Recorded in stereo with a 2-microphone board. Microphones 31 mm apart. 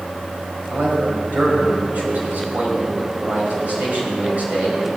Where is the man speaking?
60° right (ahead or behind), 4 m.